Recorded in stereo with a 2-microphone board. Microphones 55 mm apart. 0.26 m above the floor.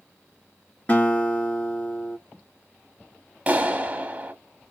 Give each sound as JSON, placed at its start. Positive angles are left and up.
{"t": 0.9, "sound": "a guitar", "side_deg": 25, "distance_m": 2.0}
{"t": 3.5, "sound": "a clap", "side_deg": -25, "distance_m": 1.5}